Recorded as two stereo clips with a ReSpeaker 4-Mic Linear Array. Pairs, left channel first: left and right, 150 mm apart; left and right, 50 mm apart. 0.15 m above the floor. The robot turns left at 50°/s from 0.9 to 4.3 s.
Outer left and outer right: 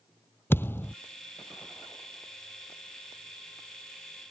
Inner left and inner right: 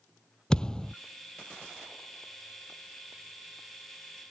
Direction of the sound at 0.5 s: 15° left (ahead or behind).